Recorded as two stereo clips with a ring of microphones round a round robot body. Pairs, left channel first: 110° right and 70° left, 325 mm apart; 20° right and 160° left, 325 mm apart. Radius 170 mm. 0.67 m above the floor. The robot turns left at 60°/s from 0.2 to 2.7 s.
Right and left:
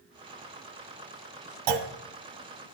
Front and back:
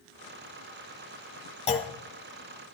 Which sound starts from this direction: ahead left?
A clunk, at 1.7 s.